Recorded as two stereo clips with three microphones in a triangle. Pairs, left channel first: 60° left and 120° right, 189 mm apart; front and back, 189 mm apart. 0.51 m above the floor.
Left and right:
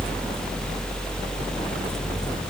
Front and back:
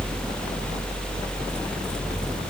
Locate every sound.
Only background noise.